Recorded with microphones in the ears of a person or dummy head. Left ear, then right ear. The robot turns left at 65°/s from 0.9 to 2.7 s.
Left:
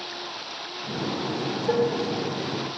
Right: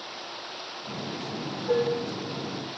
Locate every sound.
1.7 s dishes clattering: 20° left (ahead or behind), 0.8 m; by 2.0 s 35° left (ahead or behind), 0.8 m